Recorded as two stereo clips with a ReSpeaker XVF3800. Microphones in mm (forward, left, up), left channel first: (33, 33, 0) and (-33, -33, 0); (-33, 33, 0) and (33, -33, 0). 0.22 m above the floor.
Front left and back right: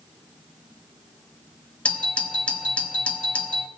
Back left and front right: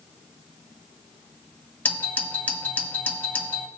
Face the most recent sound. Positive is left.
turn(degrees=95)